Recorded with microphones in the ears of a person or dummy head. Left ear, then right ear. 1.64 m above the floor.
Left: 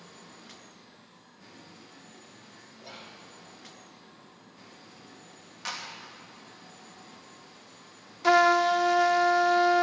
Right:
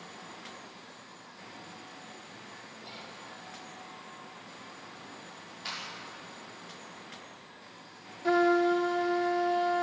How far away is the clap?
About 3 m.